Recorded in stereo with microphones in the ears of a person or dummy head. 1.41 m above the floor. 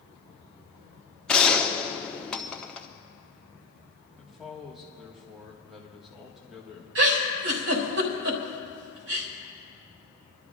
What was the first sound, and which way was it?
A gunshot, 5° left (ahead or behind).